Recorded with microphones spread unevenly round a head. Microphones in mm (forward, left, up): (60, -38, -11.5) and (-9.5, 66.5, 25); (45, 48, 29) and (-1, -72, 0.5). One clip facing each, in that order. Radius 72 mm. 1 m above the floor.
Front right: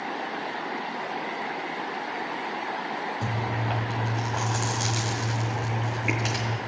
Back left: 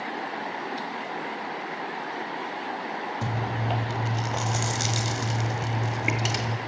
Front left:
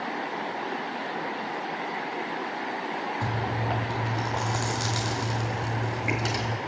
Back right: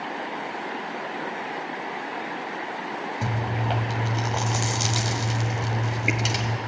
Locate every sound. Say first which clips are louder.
3.2 s chewing: even, back right 3 dB; 170° left, 1.5 m